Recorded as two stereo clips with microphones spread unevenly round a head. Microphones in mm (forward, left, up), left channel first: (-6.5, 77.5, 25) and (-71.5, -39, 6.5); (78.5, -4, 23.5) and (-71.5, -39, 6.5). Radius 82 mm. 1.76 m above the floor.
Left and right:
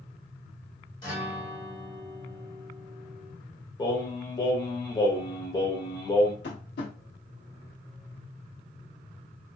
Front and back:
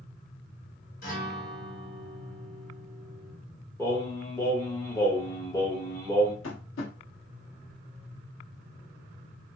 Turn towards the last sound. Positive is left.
turn(degrees=35)